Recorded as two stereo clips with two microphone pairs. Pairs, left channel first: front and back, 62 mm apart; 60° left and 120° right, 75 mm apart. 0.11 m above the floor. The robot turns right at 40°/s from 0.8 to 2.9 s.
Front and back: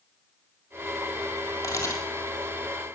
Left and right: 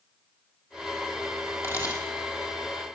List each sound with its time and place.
1.6 s a camera shutter: 15° left, 3 m; by 2.0 s 30° left, 3 m